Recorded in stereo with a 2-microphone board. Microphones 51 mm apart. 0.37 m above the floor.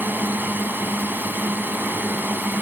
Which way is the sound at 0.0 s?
40° right (ahead or behind).